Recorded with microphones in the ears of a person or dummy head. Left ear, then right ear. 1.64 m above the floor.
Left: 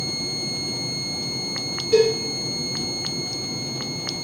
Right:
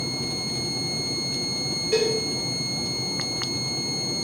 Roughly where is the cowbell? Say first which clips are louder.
Left 6 dB; centre.